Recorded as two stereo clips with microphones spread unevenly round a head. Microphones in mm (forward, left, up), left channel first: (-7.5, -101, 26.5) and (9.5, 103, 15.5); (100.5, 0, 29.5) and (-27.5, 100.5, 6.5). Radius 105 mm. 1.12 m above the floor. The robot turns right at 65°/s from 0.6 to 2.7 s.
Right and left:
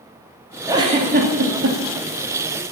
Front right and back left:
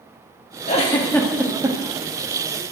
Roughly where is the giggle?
Ahead.